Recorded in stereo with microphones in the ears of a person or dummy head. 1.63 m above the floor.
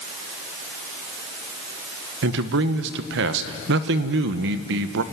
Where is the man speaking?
70° right (ahead or behind), 1.2 m.